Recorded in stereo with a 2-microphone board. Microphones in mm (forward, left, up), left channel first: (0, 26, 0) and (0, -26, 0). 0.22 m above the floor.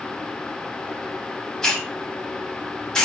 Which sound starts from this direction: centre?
A hiss, at 1.6 s.